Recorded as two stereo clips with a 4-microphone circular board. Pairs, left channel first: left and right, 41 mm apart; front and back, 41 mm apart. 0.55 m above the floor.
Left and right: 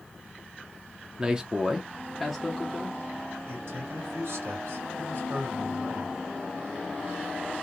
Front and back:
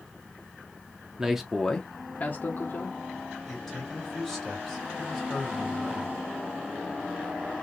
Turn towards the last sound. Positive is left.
turn(degrees=-80)